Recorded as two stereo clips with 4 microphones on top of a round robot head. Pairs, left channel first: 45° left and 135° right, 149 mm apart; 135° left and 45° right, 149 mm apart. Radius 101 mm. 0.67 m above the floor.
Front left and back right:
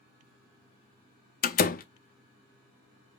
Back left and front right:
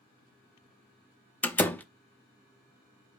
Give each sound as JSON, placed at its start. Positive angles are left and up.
{"t": 1.4, "sound": "a door slam", "azimuth_deg": 55, "distance_m": 0.7}